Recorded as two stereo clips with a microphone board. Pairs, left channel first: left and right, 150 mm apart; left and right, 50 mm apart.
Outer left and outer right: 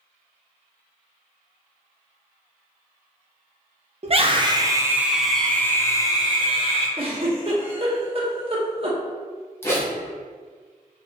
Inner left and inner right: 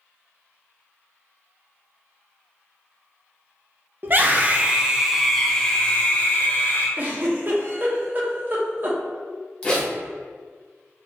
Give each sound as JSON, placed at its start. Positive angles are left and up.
{"t": 4.0, "sound": "a scream", "side_deg": -45, "distance_m": 0.9}
{"t": 7.0, "sound": "a giggle", "side_deg": -40, "distance_m": 1.1}
{"t": 9.6, "sound": "a zipper", "side_deg": 15, "distance_m": 1.4}